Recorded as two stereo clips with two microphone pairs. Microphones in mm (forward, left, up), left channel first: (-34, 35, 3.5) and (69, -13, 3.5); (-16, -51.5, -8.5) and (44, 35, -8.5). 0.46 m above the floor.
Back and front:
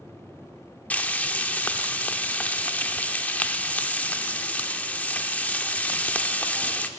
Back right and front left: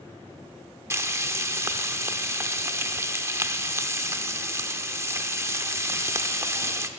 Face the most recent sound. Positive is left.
turn(degrees=85)